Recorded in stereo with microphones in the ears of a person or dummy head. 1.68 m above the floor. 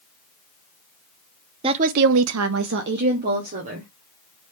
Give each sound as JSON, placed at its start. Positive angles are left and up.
{"t": 1.6, "sound": "a woman speaking", "side_deg": -25, "distance_m": 0.6}